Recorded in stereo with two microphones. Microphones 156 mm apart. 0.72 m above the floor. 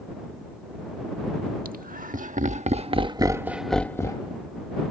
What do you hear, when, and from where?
1.6 s laughter: 65° right (ahead or behind); by 4.3 s 30° left (ahead or behind)